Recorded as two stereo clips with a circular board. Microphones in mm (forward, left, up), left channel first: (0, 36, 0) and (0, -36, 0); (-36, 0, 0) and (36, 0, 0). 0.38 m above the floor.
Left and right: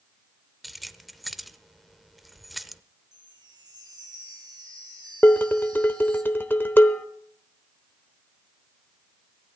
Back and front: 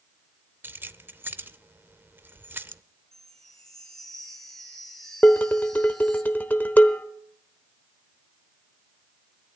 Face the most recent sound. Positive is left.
turn(degrees=130)